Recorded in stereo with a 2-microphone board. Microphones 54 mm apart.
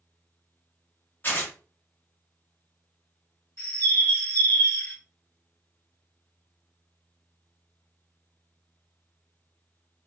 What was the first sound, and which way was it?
Tearing paper, 40° left (ahead or behind).